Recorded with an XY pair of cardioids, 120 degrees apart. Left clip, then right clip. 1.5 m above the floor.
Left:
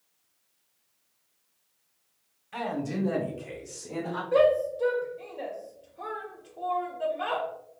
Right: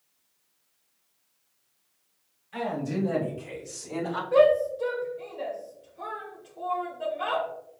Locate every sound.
2.5 s a man speaking: 35° left, 1.1 m; by 4.2 s 15° right, 1.3 m
4.3 s a shout: 10° left, 0.7 m